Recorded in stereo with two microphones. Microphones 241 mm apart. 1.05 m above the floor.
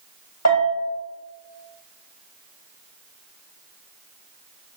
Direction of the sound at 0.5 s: 80° left.